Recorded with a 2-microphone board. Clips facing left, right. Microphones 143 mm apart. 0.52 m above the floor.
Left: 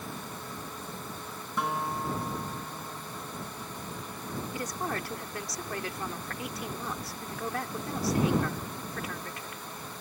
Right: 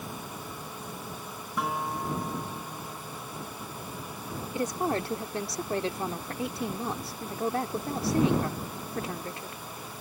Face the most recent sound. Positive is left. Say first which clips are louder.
# right 8 dB
turn(degrees=-30)  # may be behind; listen again after turning